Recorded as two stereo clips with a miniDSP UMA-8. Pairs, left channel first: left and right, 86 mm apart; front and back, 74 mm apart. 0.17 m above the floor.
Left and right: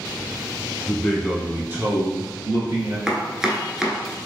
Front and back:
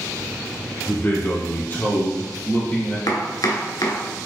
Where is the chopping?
5° right, 0.7 m.